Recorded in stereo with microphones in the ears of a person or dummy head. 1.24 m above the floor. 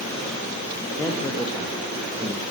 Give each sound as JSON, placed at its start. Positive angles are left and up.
{"t": 1.0, "sound": "a man speaking", "side_deg": 10, "distance_m": 2.0}